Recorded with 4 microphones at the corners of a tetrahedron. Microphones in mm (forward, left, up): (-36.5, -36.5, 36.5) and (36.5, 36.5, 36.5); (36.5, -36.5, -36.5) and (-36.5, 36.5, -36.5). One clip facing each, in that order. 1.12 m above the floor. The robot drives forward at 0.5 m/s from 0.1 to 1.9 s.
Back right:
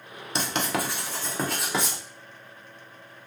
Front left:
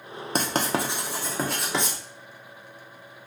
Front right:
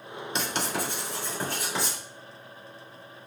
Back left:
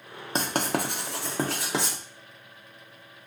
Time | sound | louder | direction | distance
0.3 | writing | front left 2 dB, back left 4 dB | 85° left | 0.6 m